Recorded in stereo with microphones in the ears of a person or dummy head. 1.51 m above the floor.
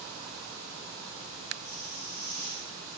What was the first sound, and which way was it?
A hiss, 45° left (ahead or behind).